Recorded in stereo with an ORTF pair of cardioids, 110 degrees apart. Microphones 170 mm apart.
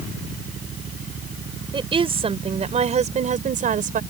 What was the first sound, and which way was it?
A woman speaking, 30° right.